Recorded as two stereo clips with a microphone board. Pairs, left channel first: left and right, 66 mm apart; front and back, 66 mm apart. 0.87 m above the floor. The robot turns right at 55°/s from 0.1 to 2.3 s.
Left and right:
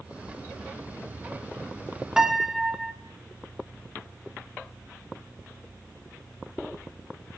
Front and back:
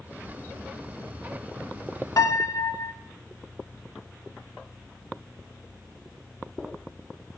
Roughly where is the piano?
Ahead.